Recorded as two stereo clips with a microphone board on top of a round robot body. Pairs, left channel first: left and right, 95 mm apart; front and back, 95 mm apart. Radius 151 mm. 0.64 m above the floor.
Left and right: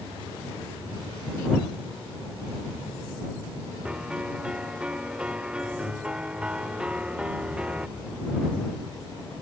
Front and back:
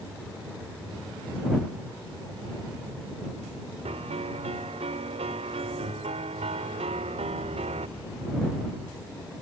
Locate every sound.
3.9 s a piano: 170° right